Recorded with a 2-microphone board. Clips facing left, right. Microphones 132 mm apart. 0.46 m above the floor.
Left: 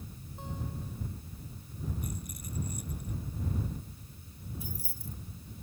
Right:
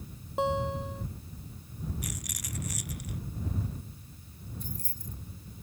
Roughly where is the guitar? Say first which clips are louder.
Right 13 dB; right.